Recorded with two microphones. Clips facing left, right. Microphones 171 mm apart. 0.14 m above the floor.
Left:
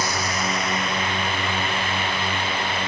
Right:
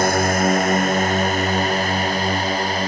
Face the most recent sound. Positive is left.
turn(degrees=-40)  # may be behind; listen again after turning